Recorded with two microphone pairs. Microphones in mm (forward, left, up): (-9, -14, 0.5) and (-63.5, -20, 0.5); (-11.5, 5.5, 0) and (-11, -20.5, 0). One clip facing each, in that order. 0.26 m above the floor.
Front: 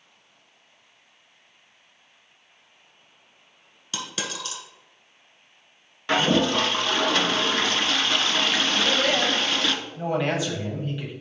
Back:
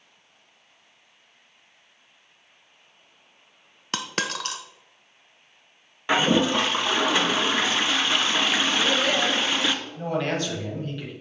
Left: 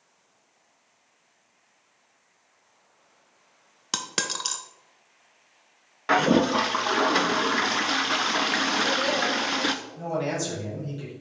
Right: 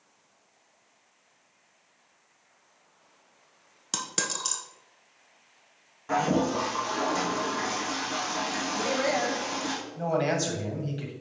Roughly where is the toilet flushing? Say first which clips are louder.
Even, left 5 dB; behind left.